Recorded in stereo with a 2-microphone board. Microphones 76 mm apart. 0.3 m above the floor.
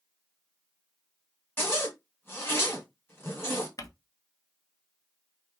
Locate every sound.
1.6 s a zipper: 30° left (ahead or behind), 1.7 m
3.8 s crumpling: 50° left (ahead or behind), 0.6 m